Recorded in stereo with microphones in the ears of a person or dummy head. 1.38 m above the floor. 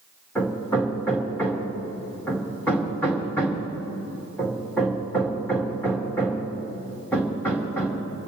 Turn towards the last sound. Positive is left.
turn(degrees=20)  # may be behind; listen again after turning